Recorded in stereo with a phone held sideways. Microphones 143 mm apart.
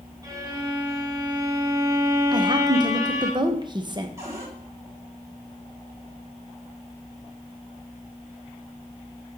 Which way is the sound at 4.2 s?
20° right (ahead or behind).